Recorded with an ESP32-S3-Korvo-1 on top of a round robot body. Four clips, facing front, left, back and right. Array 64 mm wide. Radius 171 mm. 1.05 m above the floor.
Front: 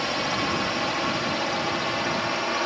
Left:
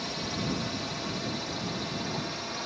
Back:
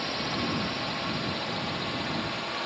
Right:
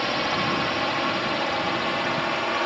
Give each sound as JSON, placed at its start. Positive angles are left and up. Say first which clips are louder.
{"t": 0.0, "sound": "a drone", "louder": "right 10 dB, front 5 dB", "azimuth_deg": -60}